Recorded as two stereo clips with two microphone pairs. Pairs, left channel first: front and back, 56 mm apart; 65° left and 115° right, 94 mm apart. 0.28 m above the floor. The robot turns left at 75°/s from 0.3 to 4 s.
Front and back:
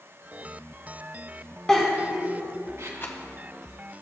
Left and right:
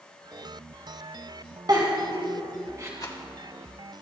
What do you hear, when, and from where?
1.7 s a giggle: 80° right, 2.5 m; by 2.9 s 170° right, 2.5 m
3.0 s a rattle: 35° left, 1.7 m; by 3.2 s 20° left, 1.7 m